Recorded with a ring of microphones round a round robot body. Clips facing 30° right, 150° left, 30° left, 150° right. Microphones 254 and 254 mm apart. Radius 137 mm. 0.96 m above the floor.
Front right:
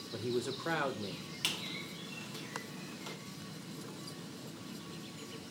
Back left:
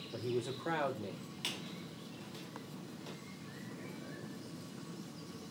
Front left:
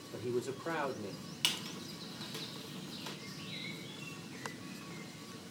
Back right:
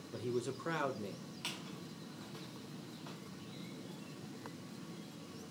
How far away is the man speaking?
About 1.0 m.